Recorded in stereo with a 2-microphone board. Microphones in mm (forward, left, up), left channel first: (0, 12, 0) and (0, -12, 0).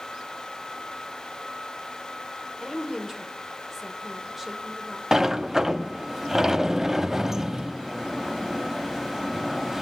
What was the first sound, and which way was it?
A woman speaking, 10° right (ahead or behind).